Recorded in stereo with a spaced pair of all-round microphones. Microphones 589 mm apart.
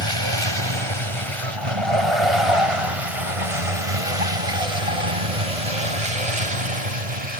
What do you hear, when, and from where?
0.0 s a vehicle: 45° right (ahead or behind); by 7.4 s 80° right